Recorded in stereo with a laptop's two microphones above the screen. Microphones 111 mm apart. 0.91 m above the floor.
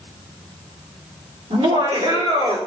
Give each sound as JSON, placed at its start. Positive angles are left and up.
{"t": 1.5, "sound": "laughter", "side_deg": -75, "distance_m": 2.5}